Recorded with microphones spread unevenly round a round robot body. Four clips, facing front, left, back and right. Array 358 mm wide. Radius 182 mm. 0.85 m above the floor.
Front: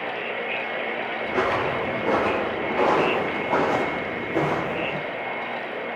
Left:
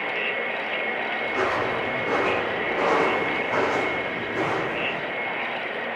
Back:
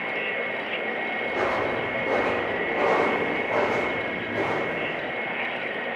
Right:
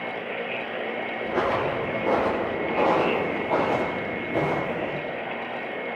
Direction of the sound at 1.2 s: 55° right.